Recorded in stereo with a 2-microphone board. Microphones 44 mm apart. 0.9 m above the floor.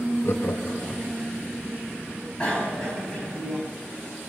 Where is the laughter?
55° left (ahead or behind), 1.1 m.